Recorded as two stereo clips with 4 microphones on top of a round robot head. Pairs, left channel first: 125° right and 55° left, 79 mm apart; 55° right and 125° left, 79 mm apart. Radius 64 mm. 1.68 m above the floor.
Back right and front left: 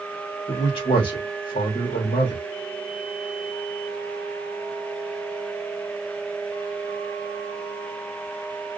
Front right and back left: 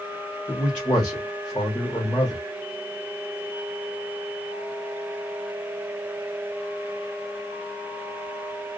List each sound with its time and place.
0.5 s a man speaking: 130° right, 1.1 m